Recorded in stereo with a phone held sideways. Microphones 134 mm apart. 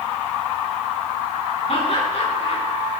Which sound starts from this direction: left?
Laughter, at 1.7 s.